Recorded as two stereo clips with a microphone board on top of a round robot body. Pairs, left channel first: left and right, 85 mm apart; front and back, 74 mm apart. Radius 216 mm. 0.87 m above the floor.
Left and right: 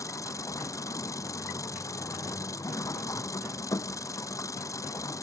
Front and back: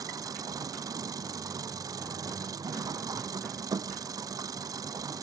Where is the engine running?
145° left.